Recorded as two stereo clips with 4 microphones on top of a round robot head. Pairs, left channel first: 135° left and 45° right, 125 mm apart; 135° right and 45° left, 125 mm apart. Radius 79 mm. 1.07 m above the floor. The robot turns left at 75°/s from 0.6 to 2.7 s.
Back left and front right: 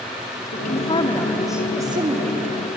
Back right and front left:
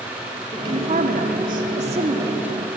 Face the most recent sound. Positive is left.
turn(degrees=-50)